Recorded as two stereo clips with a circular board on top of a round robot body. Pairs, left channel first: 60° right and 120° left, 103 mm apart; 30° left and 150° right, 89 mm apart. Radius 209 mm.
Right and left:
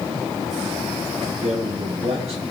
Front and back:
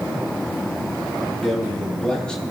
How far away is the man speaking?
About 7 m.